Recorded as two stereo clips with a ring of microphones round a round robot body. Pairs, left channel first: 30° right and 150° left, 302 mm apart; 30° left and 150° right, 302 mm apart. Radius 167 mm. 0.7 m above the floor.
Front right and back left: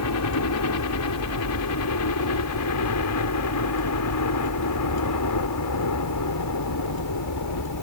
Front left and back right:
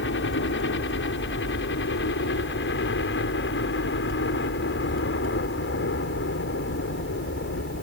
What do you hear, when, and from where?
0.0 s a helicopter: 15° right; by 7.8 s 20° right